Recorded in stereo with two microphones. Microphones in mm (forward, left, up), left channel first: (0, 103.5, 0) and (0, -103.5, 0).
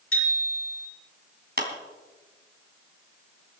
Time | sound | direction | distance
0.1 | a bicycle bell | 85° left | 6.5 m
1.6 | a clap | 50° right (ahead or behind) | 3 m